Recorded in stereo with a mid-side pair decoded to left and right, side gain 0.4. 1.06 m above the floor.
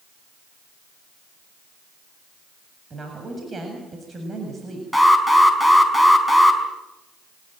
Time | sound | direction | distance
2.9 | a woman speaking | 35° right | 7.5 m
4.9 | an alarm | 5° left | 6 m